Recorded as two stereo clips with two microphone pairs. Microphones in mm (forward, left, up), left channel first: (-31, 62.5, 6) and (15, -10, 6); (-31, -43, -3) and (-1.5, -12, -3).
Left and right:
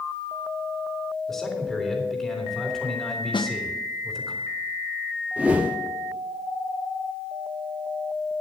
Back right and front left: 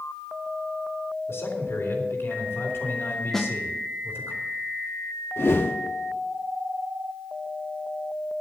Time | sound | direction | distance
1.3 | a man speaking | 150° right | 3 m
3.3 | a snare drum | 145° left | 0.9 m
5.4 | a whoosh | 130° right | 1.2 m